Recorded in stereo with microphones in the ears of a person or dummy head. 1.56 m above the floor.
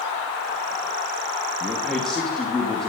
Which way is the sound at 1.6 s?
5° left (ahead or behind).